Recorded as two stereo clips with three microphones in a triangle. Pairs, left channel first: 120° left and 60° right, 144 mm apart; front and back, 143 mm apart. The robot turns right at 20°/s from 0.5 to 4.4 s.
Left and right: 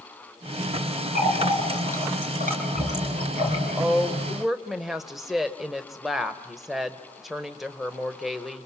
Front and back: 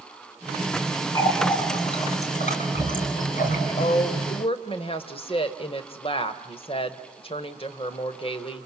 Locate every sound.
1.1 s a running tap: 60° right, 4 m; by 3.6 s 10° right, 4 m
3.8 s a woman speaking: 15° left, 1.3 m; by 8.7 s 25° left, 1.3 m